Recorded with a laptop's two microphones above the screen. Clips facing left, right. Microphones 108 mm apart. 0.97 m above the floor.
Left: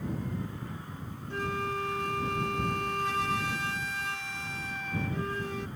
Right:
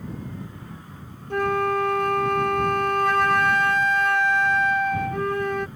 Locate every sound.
1.3 s a flute: 60° right (ahead or behind)